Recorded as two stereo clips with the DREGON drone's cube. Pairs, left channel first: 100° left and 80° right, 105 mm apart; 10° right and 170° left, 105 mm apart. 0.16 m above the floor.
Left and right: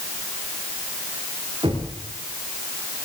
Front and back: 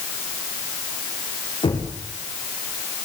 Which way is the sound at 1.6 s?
40° right.